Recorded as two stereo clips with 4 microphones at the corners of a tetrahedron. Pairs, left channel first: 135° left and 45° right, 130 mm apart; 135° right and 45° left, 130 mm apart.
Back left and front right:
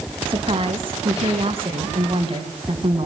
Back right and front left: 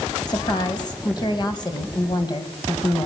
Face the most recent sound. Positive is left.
turn(degrees=-85)